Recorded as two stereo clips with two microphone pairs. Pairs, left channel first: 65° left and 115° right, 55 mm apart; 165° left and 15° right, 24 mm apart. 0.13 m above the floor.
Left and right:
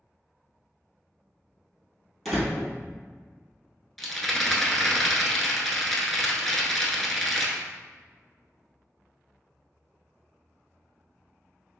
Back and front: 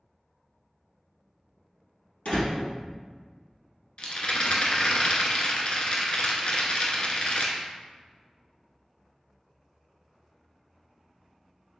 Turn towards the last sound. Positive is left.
turn(degrees=150)